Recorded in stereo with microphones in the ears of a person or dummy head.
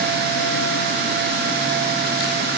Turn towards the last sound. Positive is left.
No sound to turn to.